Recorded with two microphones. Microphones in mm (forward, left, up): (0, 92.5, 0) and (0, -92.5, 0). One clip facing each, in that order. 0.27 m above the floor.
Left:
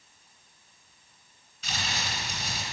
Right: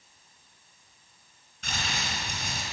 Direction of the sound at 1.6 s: 55° right (ahead or behind).